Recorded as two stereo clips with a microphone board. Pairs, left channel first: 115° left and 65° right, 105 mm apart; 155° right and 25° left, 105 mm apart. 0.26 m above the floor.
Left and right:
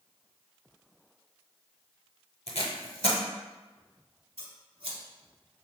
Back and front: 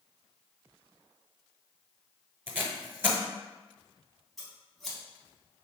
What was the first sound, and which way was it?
Tape being pulled, 90° left.